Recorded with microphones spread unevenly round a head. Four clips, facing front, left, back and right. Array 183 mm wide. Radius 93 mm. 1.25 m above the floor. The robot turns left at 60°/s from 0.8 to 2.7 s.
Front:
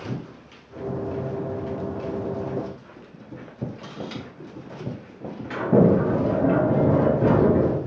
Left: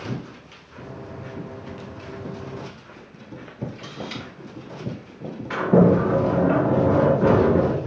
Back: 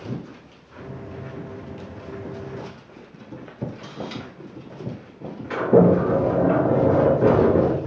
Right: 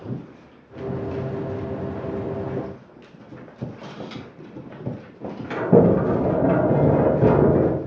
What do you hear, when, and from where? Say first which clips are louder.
3.8 s a camera shutter: left 1 dB, back 1 dB; straight ahead, 4 m
5.5 s a sliding door: right 1 dB, back 2 dB; 100° right, 2.5 m